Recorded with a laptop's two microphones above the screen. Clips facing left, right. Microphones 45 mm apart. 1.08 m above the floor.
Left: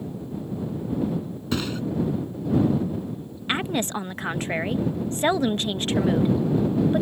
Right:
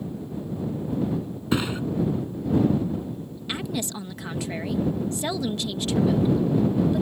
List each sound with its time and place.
1.5 s a thud: 20° right (ahead or behind)
3.5 s a woman speaking: 45° left (ahead or behind)